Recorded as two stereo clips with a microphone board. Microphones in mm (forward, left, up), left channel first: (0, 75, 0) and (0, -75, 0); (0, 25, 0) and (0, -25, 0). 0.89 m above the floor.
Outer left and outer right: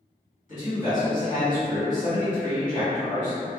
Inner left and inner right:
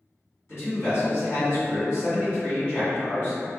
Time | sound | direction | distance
0.5 | a man speaking | 55° left (ahead or behind) | 1.8 m